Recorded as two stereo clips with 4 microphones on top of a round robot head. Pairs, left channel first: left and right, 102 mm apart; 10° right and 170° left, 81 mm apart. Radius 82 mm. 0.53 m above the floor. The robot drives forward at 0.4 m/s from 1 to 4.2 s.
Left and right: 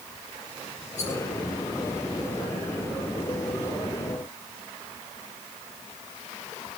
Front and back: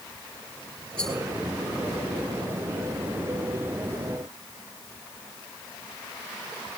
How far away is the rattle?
About 10 m.